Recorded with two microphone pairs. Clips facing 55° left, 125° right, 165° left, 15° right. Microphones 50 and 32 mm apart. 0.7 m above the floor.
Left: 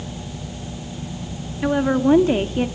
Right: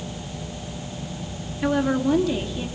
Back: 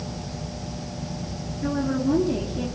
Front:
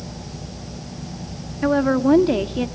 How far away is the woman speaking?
About 1.6 m.